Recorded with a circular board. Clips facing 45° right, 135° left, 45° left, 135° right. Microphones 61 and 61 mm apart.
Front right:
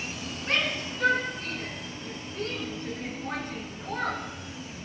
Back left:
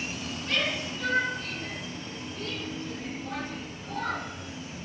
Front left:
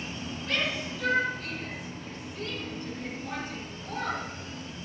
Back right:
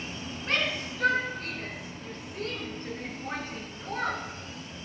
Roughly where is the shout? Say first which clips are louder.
Front right 2 dB, back right 1 dB; right.